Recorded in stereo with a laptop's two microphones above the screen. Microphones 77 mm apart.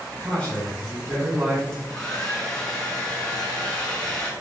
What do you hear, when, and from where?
0.2 s a man speaking: 25° left (ahead or behind), 1.4 m; by 1.6 s 20° right (ahead or behind), 1.6 m
1.7 s a hair dryer: 10° left (ahead or behind), 1.4 m